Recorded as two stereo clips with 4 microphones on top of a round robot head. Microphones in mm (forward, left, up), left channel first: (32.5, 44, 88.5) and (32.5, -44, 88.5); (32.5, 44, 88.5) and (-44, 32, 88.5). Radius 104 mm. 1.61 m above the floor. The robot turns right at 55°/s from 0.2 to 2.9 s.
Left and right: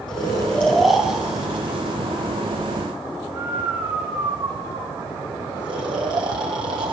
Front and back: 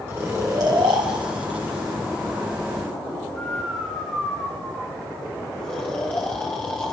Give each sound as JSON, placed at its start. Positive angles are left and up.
{"t": 0.1, "sound": "snoring", "azimuth_deg": 140, "distance_m": 1.5}